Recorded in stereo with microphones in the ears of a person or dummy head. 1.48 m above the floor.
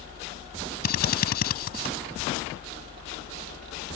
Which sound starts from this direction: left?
A drill, at 0.8 s.